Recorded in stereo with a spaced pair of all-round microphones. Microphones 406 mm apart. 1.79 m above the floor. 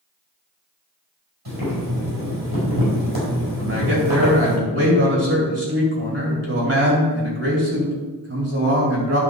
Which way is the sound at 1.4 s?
70° right (ahead or behind).